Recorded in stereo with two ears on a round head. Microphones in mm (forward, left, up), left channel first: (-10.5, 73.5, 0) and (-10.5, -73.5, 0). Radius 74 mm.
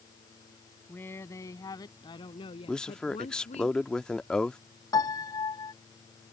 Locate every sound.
0.9 s a woman speaking: 10° left (ahead or behind); by 3.7 s 45° left (ahead or behind)
2.7 s a man speaking: 5° left (ahead or behind)
4.9 s a piano: 25° left (ahead or behind)